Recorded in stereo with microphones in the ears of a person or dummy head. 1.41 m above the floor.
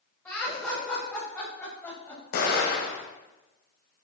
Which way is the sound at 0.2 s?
15° left (ahead or behind).